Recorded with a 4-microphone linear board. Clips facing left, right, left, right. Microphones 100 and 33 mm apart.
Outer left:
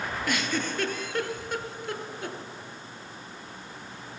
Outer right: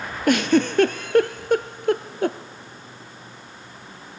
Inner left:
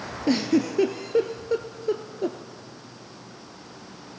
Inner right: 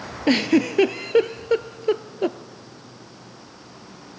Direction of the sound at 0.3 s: 55° right (ahead or behind).